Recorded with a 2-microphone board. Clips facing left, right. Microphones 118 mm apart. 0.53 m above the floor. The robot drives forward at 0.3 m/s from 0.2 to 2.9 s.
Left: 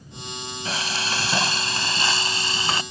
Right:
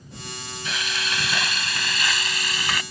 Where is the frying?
35° left (ahead or behind); by 2.8 s 30° left (ahead or behind).